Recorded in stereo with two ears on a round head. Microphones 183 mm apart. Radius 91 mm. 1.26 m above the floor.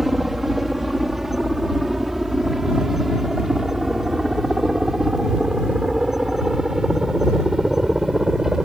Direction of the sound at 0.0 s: Centre (ahead or behind).